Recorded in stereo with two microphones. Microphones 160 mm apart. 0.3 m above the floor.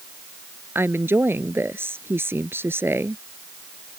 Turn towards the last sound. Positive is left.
turn(degrees=-15)  # may be behind; listen again after turning